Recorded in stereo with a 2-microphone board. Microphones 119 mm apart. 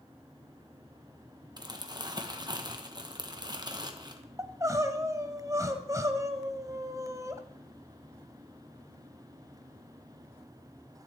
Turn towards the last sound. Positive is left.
turn(degrees=-30)  # may be behind; listen again after turning